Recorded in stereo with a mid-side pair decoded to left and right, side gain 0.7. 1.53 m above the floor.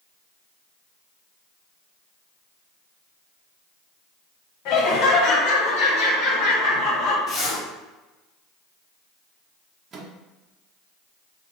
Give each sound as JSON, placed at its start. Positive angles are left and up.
{"t": 4.7, "sound": "laughter", "azimuth_deg": 65, "distance_m": 1.6}
{"t": 7.3, "sound": "a zipper", "azimuth_deg": 40, "distance_m": 1.6}
{"t": 9.9, "sound": "a microwave", "azimuth_deg": -30, "distance_m": 0.9}